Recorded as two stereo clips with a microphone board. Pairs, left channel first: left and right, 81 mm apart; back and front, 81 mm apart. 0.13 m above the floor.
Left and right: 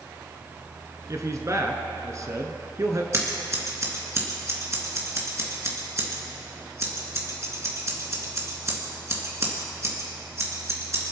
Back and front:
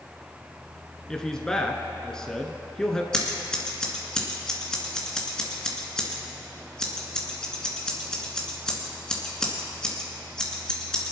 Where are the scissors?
105° right, 2 m.